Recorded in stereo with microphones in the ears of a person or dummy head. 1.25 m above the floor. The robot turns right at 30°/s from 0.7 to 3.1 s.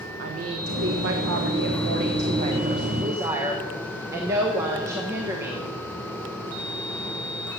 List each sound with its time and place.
0.2 s a woman speaking: 90° right, 1.4 m; by 5.7 s 20° right, 1.4 m